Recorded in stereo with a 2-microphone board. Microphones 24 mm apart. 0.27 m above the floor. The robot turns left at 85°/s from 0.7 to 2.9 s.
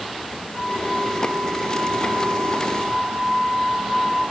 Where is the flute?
75° right, 8.5 m; by 4.2 s 100° left, 8.5 m.